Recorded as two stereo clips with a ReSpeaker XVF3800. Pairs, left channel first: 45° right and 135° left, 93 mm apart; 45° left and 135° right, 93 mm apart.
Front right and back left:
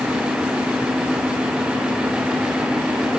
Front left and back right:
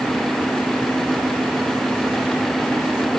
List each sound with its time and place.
Only background noise.